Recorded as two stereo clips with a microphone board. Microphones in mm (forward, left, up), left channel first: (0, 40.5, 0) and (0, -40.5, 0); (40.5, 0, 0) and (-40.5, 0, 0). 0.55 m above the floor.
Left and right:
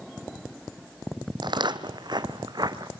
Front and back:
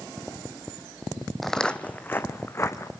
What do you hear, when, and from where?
1.4 s footsteps: 85° right, 1.1 m; by 2.9 s 50° right, 2 m